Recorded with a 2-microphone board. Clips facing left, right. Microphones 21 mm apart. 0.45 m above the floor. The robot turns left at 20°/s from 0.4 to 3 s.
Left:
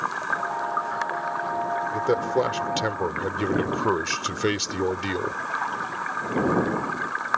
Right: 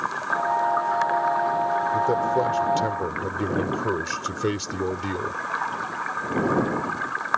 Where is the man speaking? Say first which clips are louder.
Left 1 dB; 40° left (ahead or behind); by 5.4 s 30° left (ahead or behind).